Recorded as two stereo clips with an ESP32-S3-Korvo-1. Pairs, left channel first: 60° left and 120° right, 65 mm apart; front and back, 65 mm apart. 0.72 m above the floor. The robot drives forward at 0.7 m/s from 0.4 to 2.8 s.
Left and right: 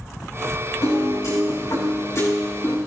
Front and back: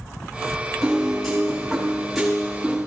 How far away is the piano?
About 6 m.